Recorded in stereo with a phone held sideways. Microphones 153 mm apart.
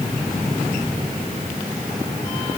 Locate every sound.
Only background noise.